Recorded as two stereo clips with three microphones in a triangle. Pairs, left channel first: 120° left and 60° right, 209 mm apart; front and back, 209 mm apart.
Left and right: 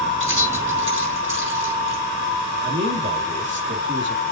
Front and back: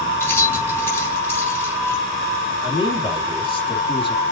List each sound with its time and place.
0.2 s keys jangling: 80° right, 4.5 m
2.6 s a man speaking: 60° right, 2 m